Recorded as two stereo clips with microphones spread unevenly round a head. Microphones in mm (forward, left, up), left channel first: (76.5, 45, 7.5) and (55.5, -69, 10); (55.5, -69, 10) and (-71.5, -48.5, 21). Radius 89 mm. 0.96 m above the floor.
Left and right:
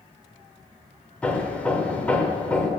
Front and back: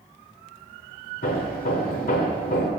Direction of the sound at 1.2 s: Straight ahead.